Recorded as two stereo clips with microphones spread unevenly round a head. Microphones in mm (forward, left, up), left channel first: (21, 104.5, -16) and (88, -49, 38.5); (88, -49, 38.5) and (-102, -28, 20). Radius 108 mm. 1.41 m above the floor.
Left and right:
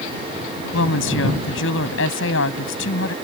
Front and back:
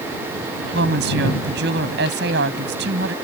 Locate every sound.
0.7 s a woman speaking: 130° left